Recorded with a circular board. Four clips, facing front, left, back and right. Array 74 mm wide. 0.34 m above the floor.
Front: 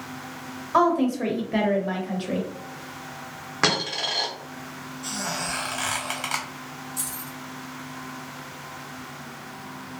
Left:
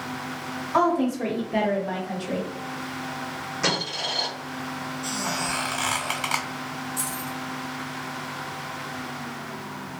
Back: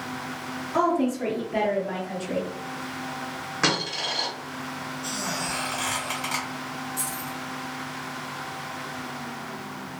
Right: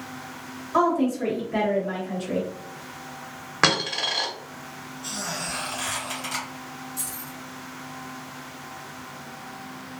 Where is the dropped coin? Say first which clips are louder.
Right 5 dB, front 2 dB; 70° right, 1.2 m.